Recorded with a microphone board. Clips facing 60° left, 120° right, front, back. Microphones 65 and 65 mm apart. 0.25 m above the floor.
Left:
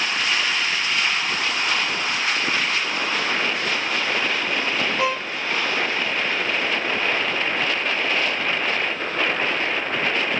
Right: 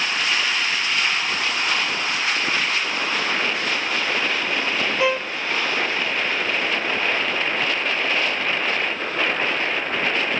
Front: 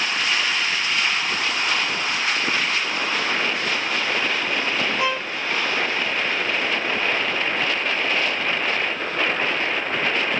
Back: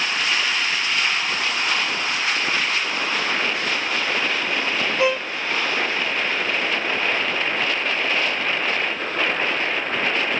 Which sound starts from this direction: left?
A violin, at 5.0 s.